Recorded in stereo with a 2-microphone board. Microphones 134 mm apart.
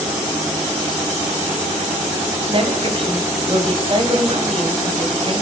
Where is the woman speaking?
45° right (ahead or behind), 2 m.